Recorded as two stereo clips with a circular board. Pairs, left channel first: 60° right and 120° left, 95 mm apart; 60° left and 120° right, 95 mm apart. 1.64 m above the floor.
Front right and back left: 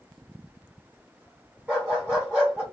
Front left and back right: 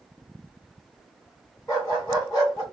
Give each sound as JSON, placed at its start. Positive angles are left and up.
{"t": 1.7, "sound": "a dog barking", "azimuth_deg": 50, "distance_m": 1.8}